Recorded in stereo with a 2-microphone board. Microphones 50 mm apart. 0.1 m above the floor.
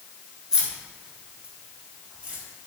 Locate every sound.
0.5 s keys jangling: 15° right (ahead or behind), 1.1 m; by 2.4 s 20° right (ahead or behind), 1.7 m